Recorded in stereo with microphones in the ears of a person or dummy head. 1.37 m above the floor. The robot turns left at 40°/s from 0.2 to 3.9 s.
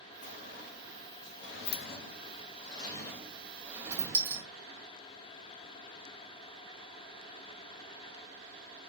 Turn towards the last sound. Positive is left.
turn(degrees=-15)  # may be behind; listen again after turning